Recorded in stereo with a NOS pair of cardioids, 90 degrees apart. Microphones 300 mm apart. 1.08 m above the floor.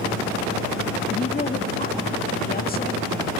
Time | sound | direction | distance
1.1 | a woman speaking | 30° left | 1.8 m